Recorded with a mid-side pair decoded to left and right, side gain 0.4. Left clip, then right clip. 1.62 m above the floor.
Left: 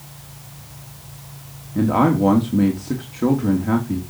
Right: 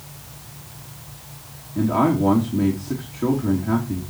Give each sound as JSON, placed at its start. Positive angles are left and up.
{"t": 1.8, "sound": "a man speaking", "azimuth_deg": 45, "distance_m": 3.0}